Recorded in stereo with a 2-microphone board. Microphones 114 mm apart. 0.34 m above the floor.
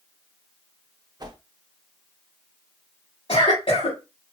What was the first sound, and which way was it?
A whoosh, 40° right (ahead or behind).